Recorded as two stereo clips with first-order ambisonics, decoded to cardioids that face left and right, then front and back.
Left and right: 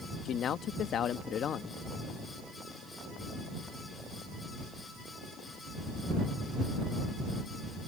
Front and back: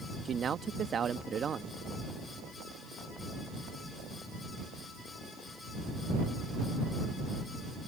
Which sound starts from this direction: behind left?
A man speaking, at 0.2 s.